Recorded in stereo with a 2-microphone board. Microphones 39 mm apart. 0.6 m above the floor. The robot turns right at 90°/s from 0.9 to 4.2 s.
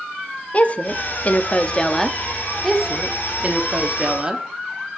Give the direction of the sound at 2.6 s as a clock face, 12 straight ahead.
6 o'clock.